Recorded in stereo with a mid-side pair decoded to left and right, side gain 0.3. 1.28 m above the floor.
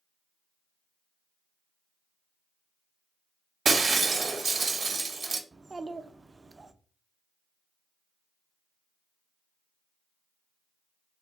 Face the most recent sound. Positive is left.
turn(degrees=-35)